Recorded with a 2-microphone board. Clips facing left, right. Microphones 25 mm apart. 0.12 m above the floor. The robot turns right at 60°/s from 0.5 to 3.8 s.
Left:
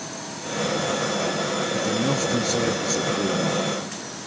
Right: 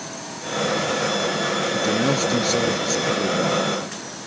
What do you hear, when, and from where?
1.7 s a man speaking: 85° right, 1.9 m; by 3.7 s 30° left, 1.9 m